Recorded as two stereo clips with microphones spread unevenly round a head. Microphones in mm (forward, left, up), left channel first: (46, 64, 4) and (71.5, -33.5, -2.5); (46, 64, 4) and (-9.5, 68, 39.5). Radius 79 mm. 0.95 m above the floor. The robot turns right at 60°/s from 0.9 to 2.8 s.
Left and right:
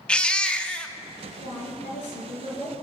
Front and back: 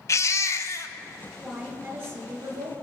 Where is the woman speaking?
100° left, 5 m; by 2.8 s straight behind, 5 m.